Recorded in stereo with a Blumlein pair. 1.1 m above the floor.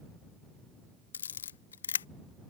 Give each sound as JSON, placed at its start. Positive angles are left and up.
{"t": 1.1, "sound": "a camera shutter", "azimuth_deg": 65}